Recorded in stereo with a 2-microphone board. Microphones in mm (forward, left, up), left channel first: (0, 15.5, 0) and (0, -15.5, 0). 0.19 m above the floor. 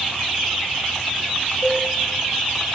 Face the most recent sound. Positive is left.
turn(degrees=70)  # may be behind; listen again after turning